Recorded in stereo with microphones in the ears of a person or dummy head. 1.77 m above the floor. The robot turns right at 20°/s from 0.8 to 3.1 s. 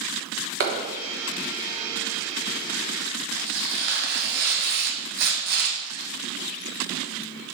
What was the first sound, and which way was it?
A clap, 50° right (ahead or behind).